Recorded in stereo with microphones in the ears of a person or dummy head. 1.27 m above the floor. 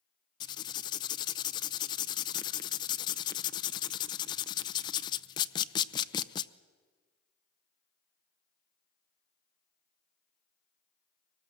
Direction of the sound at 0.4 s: 20° left (ahead or behind).